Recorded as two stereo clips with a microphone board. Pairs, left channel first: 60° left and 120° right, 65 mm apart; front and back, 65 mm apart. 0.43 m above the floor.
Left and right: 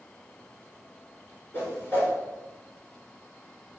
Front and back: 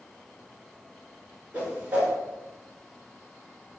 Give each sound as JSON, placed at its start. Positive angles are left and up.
{"t": 1.5, "sound": "a whoosh", "azimuth_deg": 115, "distance_m": 1.4}